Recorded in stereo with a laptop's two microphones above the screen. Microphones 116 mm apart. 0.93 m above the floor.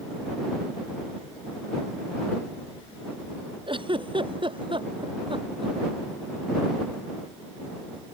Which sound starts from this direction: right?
A giggle, at 3.7 s.